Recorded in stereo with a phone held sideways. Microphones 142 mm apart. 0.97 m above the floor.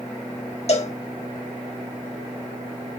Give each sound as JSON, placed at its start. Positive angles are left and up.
{"t": 0.7, "sound": "a cowbell", "side_deg": 50, "distance_m": 1.0}